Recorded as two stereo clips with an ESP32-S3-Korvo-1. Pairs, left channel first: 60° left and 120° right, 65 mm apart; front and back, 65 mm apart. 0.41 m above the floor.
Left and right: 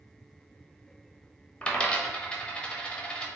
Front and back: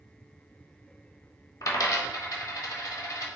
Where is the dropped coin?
10° right, 0.8 m.